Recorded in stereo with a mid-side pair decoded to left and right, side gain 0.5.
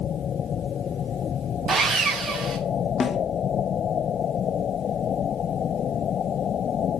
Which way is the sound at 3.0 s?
45° left.